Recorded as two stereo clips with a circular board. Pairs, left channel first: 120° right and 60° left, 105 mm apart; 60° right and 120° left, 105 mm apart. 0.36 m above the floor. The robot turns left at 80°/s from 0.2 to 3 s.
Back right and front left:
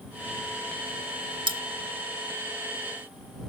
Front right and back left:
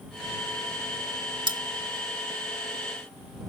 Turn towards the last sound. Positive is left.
turn(degrees=-35)